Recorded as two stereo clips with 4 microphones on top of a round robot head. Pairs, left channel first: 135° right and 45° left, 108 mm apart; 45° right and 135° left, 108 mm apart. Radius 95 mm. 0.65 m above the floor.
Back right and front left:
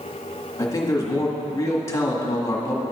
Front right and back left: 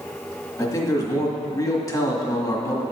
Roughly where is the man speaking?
Right.